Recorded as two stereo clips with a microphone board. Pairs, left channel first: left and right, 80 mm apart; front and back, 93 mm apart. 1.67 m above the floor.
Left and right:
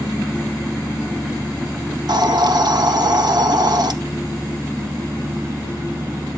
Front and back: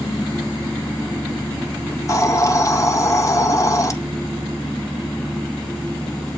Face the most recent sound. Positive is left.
turn(degrees=-55)